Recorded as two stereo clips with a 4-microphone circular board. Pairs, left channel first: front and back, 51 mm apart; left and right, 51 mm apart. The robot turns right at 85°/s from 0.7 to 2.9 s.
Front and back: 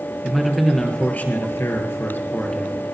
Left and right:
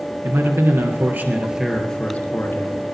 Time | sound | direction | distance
0.2 | a man speaking | 90° right | 2.5 m